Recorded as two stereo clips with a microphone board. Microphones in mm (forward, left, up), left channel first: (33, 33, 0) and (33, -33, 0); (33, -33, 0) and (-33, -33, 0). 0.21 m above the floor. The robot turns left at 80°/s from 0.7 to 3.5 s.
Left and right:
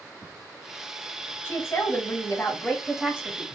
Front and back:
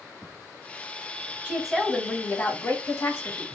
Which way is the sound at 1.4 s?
120° left.